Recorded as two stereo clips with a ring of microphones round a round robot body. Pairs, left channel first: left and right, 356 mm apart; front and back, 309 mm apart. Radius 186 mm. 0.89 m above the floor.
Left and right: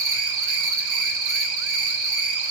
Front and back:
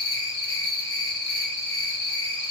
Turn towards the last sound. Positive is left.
turn(degrees=-85)